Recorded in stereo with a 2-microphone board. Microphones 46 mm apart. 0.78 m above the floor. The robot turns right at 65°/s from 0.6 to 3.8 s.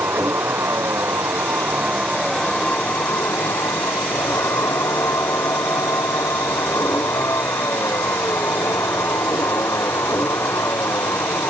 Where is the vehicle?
110° right; by 11.5 s 95° left.